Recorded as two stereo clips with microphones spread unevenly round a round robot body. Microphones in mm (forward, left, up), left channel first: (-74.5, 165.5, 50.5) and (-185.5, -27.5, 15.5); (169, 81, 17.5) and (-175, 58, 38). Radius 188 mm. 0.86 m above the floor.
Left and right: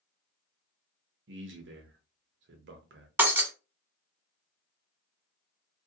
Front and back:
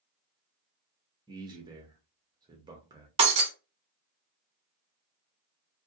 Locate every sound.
1.3 s a man speaking: 95° right, 0.6 m
3.2 s breaking glass: 150° left, 0.8 m